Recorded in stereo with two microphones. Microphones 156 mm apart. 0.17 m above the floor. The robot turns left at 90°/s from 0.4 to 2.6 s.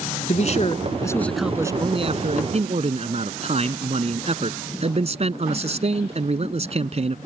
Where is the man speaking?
90° left; by 7.2 s 110° right.